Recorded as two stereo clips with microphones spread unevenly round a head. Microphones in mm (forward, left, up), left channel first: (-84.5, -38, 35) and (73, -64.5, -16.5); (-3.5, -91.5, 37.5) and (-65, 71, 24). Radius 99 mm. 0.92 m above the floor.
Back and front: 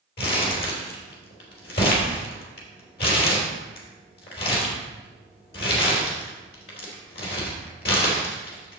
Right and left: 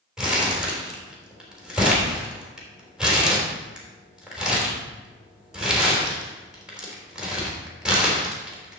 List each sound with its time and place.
0.2 s crumpling: 165° right, 3.5 m